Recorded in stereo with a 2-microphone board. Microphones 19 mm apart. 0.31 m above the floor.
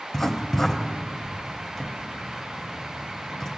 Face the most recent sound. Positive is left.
turn(degrees=10)  # may be behind; listen again after turning